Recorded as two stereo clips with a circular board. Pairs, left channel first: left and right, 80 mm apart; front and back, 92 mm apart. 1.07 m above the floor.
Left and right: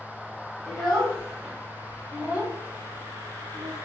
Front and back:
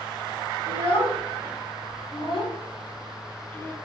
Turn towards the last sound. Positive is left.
turn(degrees=-70)